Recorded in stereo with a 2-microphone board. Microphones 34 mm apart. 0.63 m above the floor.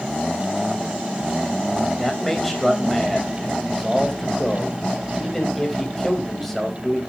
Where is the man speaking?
5° left (ahead or behind), 4 m.